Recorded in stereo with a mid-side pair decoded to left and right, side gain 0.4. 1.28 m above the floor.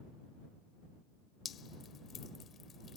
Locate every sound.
1.4 s dripping: 60° left